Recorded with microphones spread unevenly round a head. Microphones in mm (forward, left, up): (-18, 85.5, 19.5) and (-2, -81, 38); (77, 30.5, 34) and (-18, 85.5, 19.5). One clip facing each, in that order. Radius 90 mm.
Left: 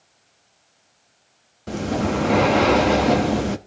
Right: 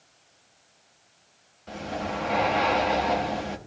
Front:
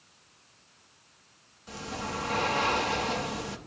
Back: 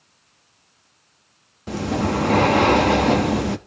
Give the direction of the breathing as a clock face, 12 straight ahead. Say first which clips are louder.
Left 9 dB, back 14 dB; 8 o'clock.